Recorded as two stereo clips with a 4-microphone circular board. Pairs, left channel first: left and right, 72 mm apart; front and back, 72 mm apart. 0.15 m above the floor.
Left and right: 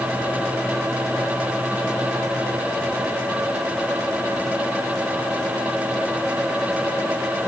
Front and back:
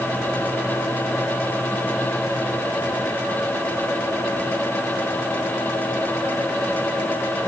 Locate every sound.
Only background noise.